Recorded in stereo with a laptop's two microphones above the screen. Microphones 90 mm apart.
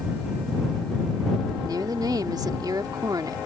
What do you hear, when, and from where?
1.6 s a woman speaking: 50° right (ahead or behind)